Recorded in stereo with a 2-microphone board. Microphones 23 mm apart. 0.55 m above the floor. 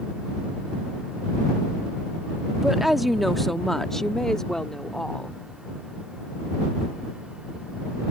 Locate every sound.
2.6 s a woman speaking: 15° right (ahead or behind); by 5.4 s 30° left (ahead or behind)